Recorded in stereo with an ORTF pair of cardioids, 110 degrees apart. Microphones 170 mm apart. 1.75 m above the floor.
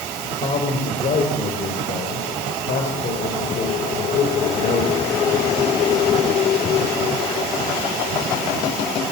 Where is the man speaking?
45° left, 6.5 m.